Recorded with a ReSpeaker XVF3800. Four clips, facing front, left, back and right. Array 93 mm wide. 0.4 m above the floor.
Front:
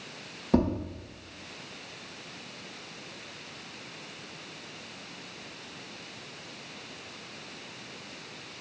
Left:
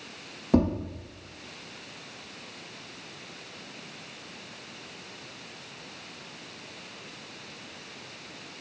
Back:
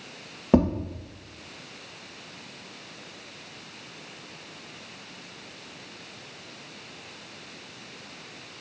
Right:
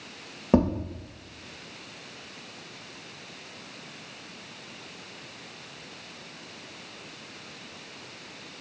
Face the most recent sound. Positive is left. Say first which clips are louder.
# right 1 dB, back 4 dB
turn(degrees=-145)